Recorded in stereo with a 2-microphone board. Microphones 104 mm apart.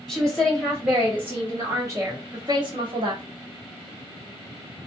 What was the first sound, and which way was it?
A woman speaking, 5° left (ahead or behind).